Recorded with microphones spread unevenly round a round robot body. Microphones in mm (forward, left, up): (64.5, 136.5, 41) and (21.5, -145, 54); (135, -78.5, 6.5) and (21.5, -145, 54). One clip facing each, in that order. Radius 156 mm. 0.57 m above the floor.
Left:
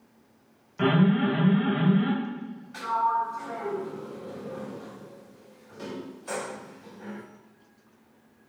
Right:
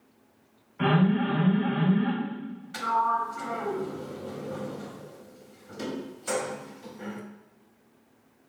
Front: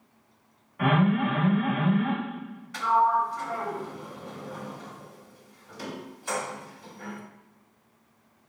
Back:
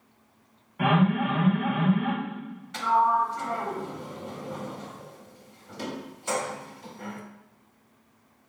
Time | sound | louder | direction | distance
0.8 | an alarm | left 2 dB, even | 120° left | 1.3 m
2.7 | a sliding door | even, even | 70° right | 0.8 m